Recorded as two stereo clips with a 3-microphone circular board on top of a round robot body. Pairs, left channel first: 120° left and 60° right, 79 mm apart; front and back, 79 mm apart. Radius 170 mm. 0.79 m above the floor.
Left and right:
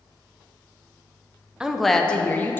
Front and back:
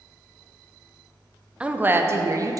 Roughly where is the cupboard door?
No cupboard door in this recording.